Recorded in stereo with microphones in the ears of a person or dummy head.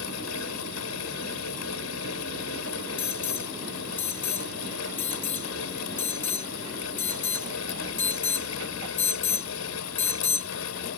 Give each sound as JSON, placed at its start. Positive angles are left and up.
{"t": 0.0, "sound": "a fan", "side_deg": 85}
{"t": 3.0, "sound": "an alarm", "side_deg": 10}